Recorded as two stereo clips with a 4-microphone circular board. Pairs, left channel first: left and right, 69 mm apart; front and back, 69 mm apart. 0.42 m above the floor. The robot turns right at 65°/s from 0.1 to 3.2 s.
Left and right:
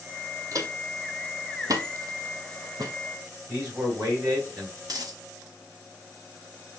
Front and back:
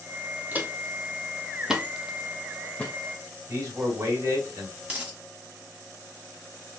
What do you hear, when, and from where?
0.5 s footsteps: 120° right, 0.9 m; by 2.9 s 65° right, 1.1 m
3.5 s a man speaking: 135° right, 2.5 m
4.8 s a dropped coin: 110° right, 1.2 m